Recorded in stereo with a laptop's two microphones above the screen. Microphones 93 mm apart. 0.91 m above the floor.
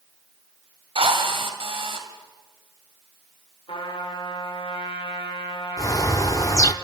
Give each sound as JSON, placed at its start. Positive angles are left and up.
{"t": 0.9, "sound": "a drill", "side_deg": -70, "distance_m": 2.0}
{"t": 3.7, "sound": "a trumpet", "side_deg": 75, "distance_m": 3.5}
{"t": 5.8, "sound": "a bird", "side_deg": 35, "distance_m": 0.6}